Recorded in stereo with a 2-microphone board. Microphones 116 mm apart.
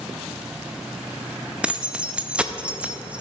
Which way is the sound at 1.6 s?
10° right (ahead or behind).